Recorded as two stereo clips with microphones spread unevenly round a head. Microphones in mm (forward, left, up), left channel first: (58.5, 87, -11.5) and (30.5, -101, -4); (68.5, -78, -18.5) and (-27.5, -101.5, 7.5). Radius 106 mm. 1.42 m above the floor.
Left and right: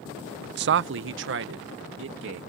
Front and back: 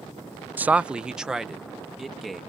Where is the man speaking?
85° right; by 2.4 s 80° right.